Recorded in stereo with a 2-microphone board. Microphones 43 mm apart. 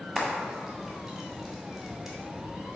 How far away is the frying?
About 1.7 m.